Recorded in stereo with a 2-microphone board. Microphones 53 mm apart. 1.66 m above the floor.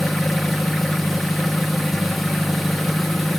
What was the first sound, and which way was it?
An engine running, 5° left (ahead or behind).